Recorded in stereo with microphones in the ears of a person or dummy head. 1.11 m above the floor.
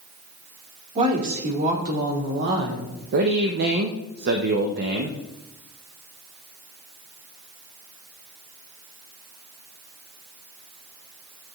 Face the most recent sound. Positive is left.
turn(degrees=-55)  # may be behind; listen again after turning